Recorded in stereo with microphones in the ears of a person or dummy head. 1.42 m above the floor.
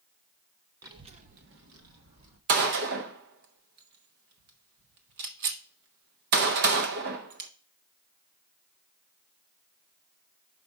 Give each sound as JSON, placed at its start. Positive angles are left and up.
{"t": 0.8, "sound": "a child speaking", "side_deg": -20, "distance_m": 1.1}
{"t": 2.5, "sound": "a gunshot", "side_deg": -55, "distance_m": 1.1}